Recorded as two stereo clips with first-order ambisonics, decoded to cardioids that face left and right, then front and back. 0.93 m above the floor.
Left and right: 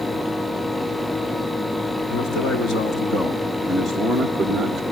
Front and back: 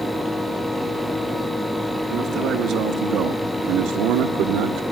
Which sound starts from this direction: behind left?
A man speaking, at 2.1 s.